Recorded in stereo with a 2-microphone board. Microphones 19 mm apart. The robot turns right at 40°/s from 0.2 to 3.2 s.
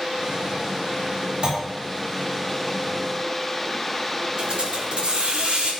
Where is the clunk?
55° right (ahead or behind), 4 m; by 1.6 s 50° right (ahead or behind), 4 m.